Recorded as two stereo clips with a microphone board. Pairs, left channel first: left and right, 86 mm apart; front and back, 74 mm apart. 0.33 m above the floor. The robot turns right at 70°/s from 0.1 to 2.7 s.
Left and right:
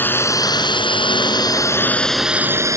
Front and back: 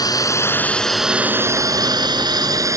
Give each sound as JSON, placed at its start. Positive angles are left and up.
{"t": 0.0, "sound": "a drone", "azimuth_deg": 25}